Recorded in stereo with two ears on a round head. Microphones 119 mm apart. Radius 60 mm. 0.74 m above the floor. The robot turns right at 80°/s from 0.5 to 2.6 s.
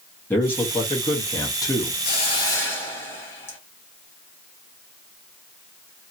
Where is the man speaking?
30° left, 1.1 m; by 1.9 s 145° left, 1.1 m.